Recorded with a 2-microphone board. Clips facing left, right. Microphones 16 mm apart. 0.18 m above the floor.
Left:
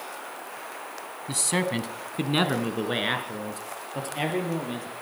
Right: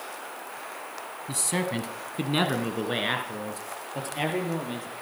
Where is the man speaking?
20° left (ahead or behind), 1.1 m; by 4.9 s centre (ahead or behind), 4 m.